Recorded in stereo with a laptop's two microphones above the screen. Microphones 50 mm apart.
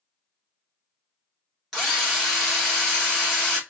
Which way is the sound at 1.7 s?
10° left (ahead or behind).